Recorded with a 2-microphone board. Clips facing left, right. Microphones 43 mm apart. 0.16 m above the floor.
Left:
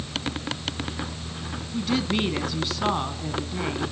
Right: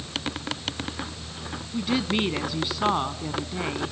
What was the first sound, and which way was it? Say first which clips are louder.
A woman speaking: even; 10° right (ahead or behind).